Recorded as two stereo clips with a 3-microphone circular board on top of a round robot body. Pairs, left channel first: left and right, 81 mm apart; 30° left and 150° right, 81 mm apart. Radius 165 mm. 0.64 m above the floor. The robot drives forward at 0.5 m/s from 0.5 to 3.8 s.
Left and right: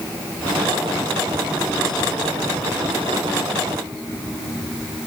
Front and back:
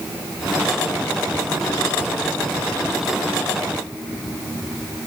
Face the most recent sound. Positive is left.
No sound to turn to.